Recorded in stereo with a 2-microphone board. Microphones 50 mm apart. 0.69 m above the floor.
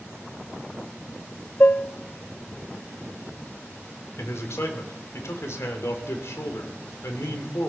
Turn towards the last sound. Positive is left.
turn(degrees=65)  # may be behind; listen again after turning